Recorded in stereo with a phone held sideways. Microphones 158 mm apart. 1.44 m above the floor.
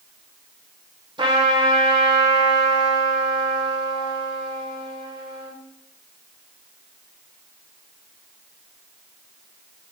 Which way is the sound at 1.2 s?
30° right (ahead or behind).